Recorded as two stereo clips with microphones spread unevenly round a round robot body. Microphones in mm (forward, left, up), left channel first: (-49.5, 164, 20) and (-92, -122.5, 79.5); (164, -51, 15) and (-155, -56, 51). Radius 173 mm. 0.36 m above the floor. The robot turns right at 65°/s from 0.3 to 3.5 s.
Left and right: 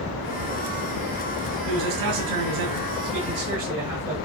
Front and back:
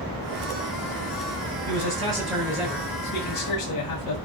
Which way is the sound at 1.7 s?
130° right.